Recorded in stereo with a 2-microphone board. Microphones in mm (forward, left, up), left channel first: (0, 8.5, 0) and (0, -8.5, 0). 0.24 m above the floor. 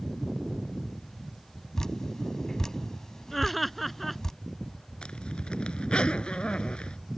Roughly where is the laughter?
Centre.